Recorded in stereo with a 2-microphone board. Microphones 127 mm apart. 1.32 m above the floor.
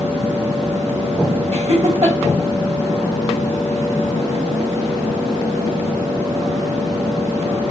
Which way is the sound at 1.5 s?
55° right (ahead or behind).